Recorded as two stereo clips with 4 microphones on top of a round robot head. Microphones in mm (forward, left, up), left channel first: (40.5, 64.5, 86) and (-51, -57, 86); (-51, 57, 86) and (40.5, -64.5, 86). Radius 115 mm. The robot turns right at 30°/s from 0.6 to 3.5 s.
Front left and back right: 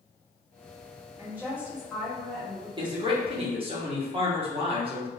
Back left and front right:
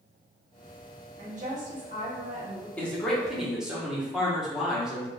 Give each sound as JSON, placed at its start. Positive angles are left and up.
{"t": 1.2, "sound": "a woman speaking", "azimuth_deg": -60, "distance_m": 1.6}
{"t": 2.8, "sound": "a man speaking", "azimuth_deg": -160, "distance_m": 1.5}